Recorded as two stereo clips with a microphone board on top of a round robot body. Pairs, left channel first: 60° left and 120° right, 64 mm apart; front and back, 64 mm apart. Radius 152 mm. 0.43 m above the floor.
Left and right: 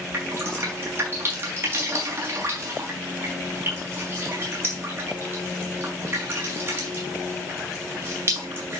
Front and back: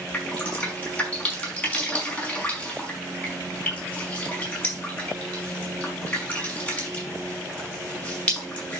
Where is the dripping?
70° right, 5.5 m.